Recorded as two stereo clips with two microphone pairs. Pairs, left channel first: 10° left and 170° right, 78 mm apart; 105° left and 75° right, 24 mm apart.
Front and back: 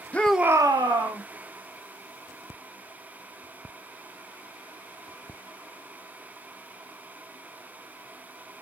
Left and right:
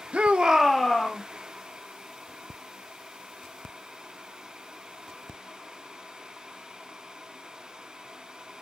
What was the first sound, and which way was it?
A shout, 50° right.